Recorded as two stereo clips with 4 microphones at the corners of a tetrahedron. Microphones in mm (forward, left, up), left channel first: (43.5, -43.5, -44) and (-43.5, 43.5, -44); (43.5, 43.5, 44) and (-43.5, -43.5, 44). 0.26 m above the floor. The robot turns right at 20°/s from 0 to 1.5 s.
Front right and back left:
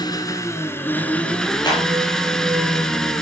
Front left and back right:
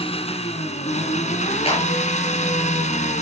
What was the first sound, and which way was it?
An engine running, 10° left.